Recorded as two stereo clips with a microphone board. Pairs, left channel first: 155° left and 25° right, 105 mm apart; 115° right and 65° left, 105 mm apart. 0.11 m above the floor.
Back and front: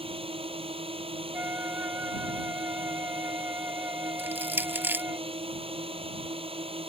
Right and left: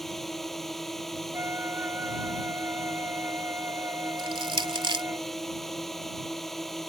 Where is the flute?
25° left.